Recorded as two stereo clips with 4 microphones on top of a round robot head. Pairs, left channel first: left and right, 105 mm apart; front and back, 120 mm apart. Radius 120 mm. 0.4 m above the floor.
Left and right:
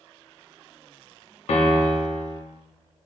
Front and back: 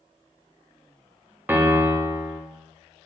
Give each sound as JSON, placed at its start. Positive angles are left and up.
{"t": 1.5, "sound": "a piano", "azimuth_deg": 105, "distance_m": 0.5}